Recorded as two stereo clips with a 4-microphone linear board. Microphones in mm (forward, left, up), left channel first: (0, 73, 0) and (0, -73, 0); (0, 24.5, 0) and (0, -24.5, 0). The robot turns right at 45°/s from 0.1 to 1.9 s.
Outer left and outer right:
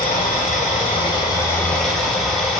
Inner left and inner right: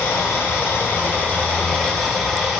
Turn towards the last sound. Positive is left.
turn(degrees=180)